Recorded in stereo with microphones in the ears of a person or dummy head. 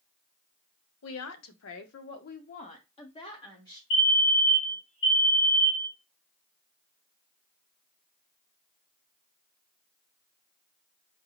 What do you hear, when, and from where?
1.0 s a woman speaking: 80° left, 0.7 m; by 3.8 s 15° left (ahead or behind), 1.3 m
3.9 s a fire alarm: 60° left (ahead or behind), 1.6 m